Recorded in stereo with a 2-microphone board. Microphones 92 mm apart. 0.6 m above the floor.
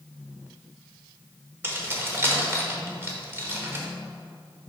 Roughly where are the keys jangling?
Right.